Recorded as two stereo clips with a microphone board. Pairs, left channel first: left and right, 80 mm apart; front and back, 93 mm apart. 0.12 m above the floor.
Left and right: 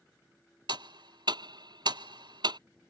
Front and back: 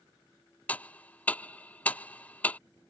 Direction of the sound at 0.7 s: 75° right.